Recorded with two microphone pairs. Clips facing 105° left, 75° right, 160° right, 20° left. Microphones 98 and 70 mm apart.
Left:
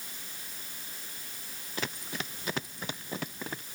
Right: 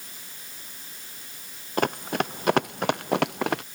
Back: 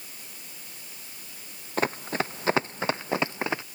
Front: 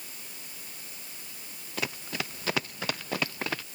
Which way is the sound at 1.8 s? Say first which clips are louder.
Right 12 dB, back 7 dB; 110° right.